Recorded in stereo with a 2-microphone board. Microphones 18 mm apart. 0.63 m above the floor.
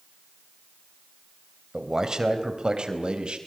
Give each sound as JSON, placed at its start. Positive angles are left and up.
{"t": 1.7, "sound": "a man speaking", "side_deg": -30, "distance_m": 3.5}